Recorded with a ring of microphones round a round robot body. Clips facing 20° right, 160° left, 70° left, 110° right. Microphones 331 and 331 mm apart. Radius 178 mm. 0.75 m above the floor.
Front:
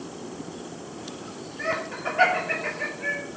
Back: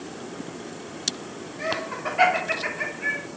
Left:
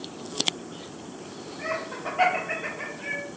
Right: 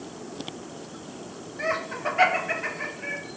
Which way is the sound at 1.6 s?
115° right.